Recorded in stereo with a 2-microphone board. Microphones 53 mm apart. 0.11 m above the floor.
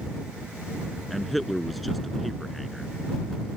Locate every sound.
1.1 s a man speaking: centre (ahead or behind)